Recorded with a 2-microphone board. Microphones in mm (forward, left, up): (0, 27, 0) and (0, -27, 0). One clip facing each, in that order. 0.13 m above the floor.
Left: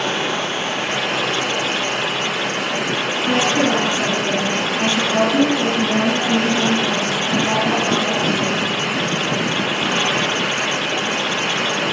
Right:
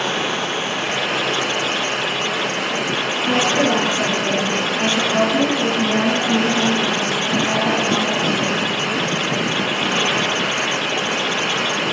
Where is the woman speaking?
25° right (ahead or behind), 1.8 m.